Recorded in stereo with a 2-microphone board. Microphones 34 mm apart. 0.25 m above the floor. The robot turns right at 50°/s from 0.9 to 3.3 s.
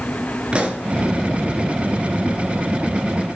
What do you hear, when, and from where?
0.5 s a pop: 35° right (ahead or behind), 3.5 m